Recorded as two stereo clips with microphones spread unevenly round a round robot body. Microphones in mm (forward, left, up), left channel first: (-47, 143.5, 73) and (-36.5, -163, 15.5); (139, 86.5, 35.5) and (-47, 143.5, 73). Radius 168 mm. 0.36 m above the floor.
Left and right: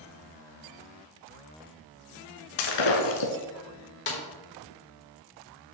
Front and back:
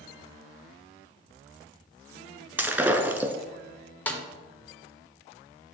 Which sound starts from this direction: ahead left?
A snare drum, at 4.1 s.